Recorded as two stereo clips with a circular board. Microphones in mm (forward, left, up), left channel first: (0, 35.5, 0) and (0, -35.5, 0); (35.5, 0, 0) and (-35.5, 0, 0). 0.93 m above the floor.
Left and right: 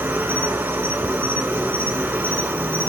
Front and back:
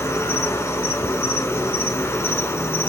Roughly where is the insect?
Ahead right.